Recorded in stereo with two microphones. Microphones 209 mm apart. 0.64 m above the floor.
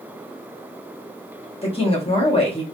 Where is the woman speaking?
25° left (ahead or behind), 1.0 m.